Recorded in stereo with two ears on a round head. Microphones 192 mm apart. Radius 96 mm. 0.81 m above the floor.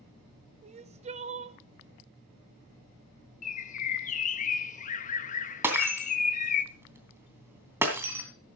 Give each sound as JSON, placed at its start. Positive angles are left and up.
{"t": 0.6, "sound": "crying", "side_deg": -30, "distance_m": 0.8}
{"t": 3.4, "sound": "a bird", "side_deg": 40, "distance_m": 0.8}
{"t": 5.6, "sound": "breaking glass", "side_deg": -10, "distance_m": 2.5}